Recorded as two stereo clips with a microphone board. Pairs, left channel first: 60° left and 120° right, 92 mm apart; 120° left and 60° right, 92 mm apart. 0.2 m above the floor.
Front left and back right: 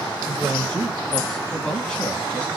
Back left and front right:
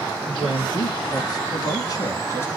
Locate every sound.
0.3 s a man speaking: 150° left, 3.5 m; by 2.5 s 120° left, 1.3 m